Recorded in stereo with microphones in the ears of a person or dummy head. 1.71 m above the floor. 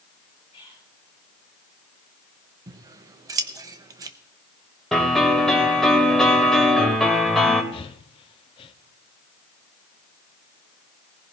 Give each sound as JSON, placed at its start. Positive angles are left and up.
{"t": 0.5, "sound": "whispering", "side_deg": 25, "distance_m": 9.5}
{"t": 2.7, "sound": "scissors", "side_deg": -20, "distance_m": 0.8}
{"t": 4.9, "sound": "a piano", "side_deg": 5, "distance_m": 2.0}
{"t": 7.7, "sound": "breathing", "side_deg": 30, "distance_m": 0.8}